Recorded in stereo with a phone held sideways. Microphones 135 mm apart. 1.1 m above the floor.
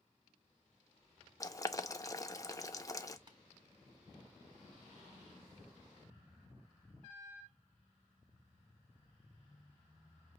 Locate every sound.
1.4 s boiling: 25° left (ahead or behind), 0.6 m
3.3 s tapping: 35° right (ahead or behind), 1.3 m